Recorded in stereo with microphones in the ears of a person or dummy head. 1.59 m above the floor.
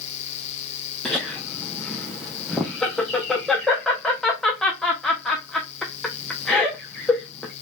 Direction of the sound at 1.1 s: Centre (ahead or behind).